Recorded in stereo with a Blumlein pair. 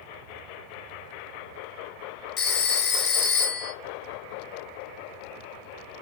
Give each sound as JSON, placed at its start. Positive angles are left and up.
{"t": 2.4, "sound": "a phone ringing", "azimuth_deg": 30, "distance_m": 0.5}